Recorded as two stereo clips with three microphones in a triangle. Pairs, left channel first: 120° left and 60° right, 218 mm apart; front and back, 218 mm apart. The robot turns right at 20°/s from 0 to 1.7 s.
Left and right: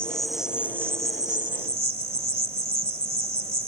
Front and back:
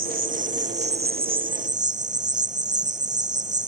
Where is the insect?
155° right; by 3.7 s 120° right.